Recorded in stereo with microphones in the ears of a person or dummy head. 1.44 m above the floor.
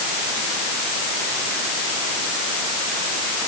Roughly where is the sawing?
I don't hear sawing.